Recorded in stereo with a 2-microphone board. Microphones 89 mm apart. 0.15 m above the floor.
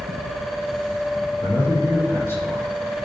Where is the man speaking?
30° left (ahead or behind), 7.5 m; by 2.7 s 25° left (ahead or behind), 9 m.